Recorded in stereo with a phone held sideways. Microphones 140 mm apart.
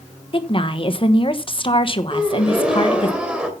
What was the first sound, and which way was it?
A woman speaking, 40° left (ahead or behind).